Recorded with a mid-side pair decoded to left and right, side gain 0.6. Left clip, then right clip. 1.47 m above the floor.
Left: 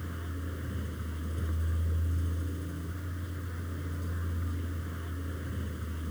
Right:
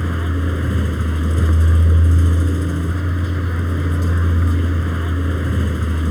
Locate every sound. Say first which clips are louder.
0.0 s a vehicle: right 18 dB; 65° right